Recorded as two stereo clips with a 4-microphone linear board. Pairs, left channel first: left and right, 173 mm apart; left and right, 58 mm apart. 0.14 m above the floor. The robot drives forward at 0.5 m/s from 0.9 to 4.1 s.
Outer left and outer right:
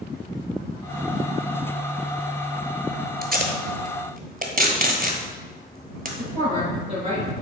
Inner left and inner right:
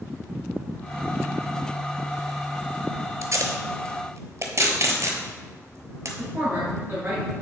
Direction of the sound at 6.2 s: 35° right (ahead or behind).